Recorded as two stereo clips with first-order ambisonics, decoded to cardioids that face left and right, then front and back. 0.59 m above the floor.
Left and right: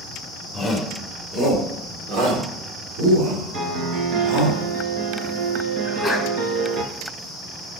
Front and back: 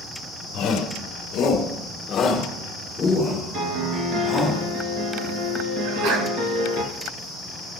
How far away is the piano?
About 1.9 m.